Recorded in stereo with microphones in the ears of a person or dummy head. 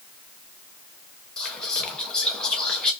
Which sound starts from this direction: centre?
Whispering, at 1.4 s.